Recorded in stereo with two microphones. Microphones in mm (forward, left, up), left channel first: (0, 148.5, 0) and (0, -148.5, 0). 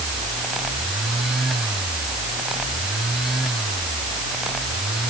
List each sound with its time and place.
Only background noise.